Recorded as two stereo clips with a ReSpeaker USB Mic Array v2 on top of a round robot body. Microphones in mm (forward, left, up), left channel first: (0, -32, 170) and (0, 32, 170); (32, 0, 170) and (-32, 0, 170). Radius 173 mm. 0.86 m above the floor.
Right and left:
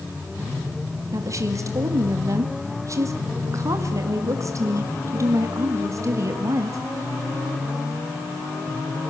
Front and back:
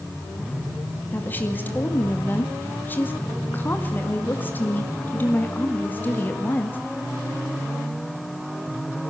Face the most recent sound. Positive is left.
turn(degrees=60)